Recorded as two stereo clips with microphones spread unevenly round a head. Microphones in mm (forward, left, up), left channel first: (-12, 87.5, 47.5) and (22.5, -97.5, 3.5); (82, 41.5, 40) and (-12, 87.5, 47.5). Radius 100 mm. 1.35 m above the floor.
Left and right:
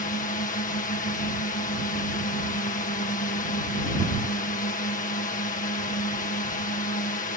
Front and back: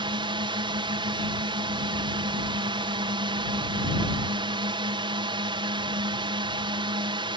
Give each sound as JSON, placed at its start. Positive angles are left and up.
{"t": 0.0, "sound": "a drone", "azimuth_deg": 145}